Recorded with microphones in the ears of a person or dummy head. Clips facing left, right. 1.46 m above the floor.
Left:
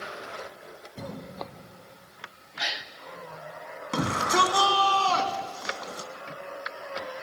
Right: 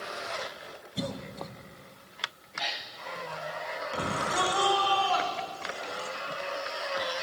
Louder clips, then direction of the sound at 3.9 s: Left 6 dB; 55° left (ahead or behind).